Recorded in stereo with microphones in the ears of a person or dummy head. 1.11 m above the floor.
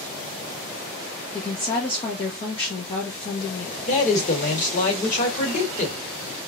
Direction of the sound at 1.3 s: 35° left (ahead or behind).